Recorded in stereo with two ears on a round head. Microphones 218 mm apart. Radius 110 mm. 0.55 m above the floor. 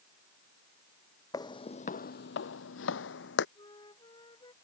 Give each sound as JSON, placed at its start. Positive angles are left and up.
{"t": 1.3, "sound": "footsteps", "side_deg": 15}
{"t": 3.5, "sound": "a flute", "side_deg": 20}